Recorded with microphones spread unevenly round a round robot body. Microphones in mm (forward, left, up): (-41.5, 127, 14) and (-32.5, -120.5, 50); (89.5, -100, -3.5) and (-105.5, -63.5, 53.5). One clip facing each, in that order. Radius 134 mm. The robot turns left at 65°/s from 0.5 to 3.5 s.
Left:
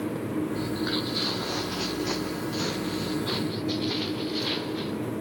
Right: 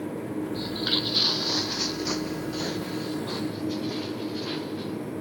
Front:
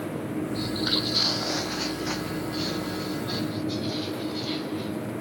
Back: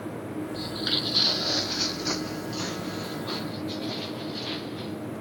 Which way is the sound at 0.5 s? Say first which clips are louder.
Left 2 dB, front 4 dB; 115° right.